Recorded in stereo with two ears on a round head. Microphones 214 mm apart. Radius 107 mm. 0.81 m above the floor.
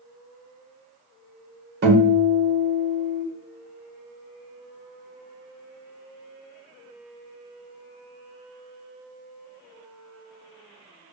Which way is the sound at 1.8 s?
45° right (ahead or behind).